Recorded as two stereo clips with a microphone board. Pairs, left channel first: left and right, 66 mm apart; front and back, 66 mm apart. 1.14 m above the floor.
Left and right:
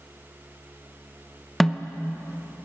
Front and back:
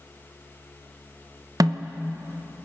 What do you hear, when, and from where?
1.6 s a snare drum: 175° left, 0.8 m